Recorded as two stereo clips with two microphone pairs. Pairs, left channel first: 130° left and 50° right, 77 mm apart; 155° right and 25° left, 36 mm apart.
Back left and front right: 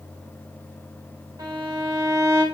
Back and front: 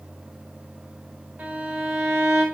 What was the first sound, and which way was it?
A violin, 10° right.